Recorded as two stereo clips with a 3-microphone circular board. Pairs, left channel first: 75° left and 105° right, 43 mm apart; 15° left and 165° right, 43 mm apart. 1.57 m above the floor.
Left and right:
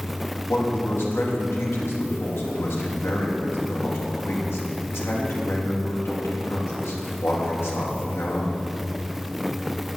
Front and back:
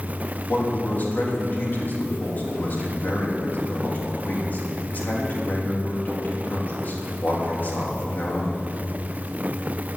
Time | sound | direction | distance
0.5 | a man speaking | 60° left | 3 m